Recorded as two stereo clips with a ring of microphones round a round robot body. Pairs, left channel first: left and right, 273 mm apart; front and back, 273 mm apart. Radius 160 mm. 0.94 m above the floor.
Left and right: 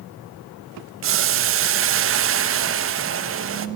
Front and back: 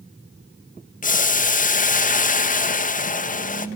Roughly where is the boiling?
Ahead right.